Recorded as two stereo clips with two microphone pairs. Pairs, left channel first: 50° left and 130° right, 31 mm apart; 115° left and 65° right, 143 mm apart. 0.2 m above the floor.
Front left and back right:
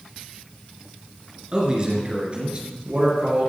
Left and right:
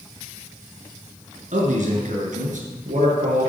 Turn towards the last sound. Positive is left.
turn(degrees=-80)